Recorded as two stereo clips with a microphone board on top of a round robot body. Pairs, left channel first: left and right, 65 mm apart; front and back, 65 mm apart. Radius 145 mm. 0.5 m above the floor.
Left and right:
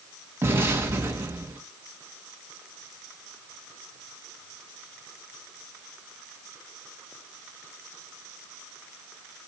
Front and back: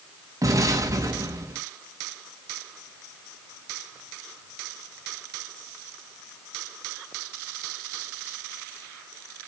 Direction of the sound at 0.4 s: 145° right.